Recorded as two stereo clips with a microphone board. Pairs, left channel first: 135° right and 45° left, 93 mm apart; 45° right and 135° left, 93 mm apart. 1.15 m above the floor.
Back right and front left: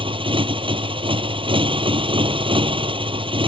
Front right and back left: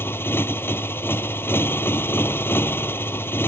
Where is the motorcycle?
20° left.